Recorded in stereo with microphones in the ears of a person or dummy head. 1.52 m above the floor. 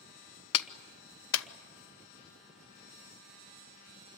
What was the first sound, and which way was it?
A clap, 75° left (ahead or behind).